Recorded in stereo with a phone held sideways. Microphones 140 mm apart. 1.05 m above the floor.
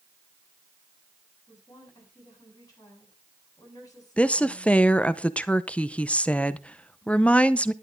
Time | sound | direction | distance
1.5 | a woman speaking | 25° left (ahead or behind) | 9 m
4.2 | a woman speaking | 10° left (ahead or behind) | 0.7 m